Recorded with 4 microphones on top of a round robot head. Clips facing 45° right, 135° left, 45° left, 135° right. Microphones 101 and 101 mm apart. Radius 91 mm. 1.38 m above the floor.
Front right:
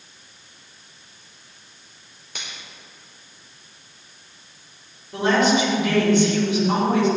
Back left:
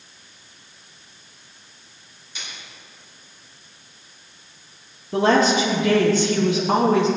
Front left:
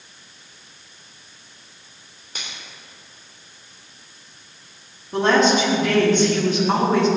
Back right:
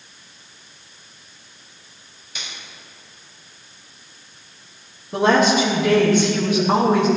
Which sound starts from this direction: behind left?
A woman speaking, at 5.1 s.